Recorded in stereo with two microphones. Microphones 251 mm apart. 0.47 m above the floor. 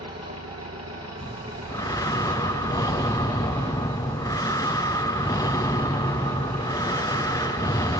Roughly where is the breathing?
Centre.